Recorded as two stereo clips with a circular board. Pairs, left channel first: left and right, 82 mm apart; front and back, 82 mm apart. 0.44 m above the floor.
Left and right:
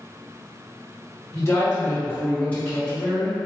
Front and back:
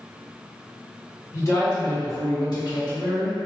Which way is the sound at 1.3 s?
45° left.